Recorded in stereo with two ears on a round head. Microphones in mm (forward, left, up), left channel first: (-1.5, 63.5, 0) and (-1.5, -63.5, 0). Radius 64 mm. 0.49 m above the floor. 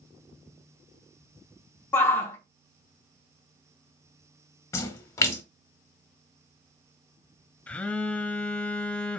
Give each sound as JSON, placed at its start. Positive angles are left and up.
{"t": 1.9, "sound": "a shout", "side_deg": 15, "distance_m": 0.8}
{"t": 4.7, "sound": "a splash", "side_deg": 20, "distance_m": 0.9}
{"t": 7.7, "sound": "a phone buzzing", "side_deg": 10, "distance_m": 0.5}